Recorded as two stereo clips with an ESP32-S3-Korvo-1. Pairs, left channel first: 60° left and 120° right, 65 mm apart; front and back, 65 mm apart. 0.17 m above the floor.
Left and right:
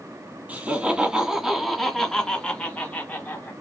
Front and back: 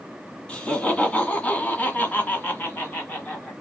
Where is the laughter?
65° right, 1.9 m; by 3.5 s 45° left, 1.9 m.